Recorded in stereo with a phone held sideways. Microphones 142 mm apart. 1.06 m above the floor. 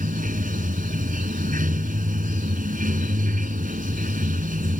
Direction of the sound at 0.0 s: 75° right (ahead or behind).